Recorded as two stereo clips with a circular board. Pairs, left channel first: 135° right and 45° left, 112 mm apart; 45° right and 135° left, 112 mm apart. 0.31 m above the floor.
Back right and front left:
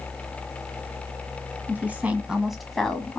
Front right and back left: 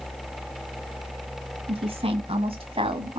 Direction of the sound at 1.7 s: 115° left.